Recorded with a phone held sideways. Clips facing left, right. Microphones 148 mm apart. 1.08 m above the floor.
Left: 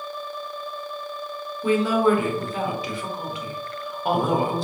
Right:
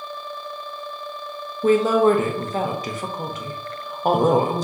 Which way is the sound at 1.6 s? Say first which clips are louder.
Right 4 dB; 45° right (ahead or behind).